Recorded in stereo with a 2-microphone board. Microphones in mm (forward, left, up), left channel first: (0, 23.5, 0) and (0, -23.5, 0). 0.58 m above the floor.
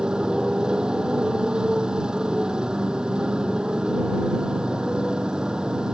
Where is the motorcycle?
15° right (ahead or behind).